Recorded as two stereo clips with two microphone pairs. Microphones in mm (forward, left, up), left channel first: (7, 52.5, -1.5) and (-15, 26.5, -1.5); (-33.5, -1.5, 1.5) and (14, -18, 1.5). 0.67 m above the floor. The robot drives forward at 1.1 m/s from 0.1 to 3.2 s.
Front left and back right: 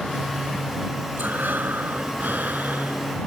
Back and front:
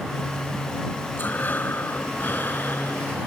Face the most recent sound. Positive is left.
turn(degrees=-155)